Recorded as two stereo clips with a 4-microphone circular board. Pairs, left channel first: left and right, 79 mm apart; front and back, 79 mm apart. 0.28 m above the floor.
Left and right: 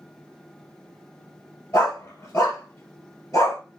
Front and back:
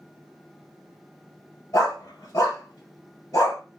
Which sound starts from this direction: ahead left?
A dog barking, at 1.7 s.